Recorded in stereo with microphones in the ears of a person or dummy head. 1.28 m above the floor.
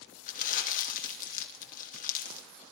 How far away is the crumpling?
About 2.5 m.